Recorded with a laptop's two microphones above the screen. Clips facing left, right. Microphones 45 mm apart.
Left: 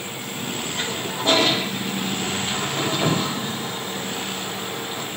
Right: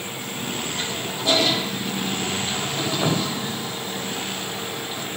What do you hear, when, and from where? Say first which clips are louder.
0.8 s a toilet flushing: left 2 dB; 35° left (ahead or behind), 4 m